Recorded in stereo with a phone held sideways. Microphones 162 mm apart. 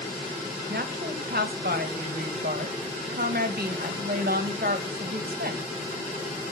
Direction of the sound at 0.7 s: 75° right (ahead or behind).